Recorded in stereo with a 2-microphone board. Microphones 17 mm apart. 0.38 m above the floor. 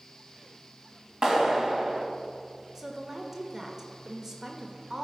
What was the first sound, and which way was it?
A clap, 50° right (ahead or behind).